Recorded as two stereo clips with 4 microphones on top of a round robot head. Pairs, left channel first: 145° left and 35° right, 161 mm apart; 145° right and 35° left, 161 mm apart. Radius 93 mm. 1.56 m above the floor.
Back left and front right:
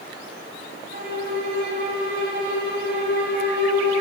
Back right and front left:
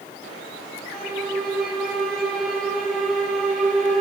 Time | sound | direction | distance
0.9 | a violin | 55° right | 5.5 m